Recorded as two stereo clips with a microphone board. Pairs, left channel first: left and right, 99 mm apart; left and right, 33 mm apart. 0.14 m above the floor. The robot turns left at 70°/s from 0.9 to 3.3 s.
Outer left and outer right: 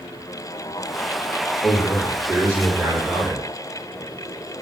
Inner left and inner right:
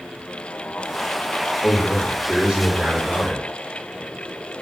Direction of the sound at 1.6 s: 50° right.